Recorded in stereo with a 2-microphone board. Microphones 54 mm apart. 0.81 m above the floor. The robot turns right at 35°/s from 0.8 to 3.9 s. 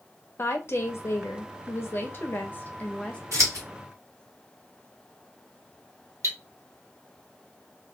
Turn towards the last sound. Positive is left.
turn(degrees=-70)  # may be behind; listen again after turning